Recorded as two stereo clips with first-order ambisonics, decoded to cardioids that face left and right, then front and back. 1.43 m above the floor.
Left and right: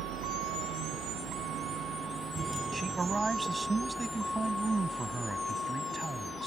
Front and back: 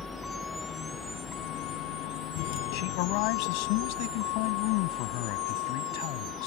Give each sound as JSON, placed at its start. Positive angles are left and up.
{"t": 0.0, "sound": "a vehicle", "azimuth_deg": -80}
{"t": 2.7, "sound": "a man speaking", "azimuth_deg": -10}